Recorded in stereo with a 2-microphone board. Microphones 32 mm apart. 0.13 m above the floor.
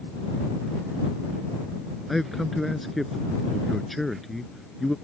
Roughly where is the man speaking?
Centre.